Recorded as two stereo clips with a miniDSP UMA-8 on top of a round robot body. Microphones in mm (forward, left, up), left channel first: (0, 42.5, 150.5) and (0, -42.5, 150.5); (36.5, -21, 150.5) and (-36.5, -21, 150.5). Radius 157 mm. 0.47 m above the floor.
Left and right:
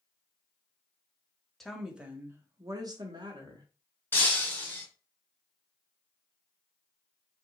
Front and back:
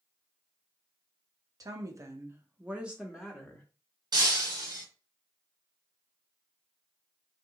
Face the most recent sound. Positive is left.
turn(degrees=160)